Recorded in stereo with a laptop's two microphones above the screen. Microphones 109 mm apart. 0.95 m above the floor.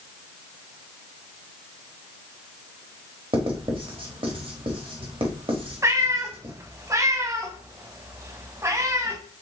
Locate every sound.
3.3 s writing: 50° right (ahead or behind), 1.1 m
5.8 s a cat meowing: 25° right (ahead or behind), 0.9 m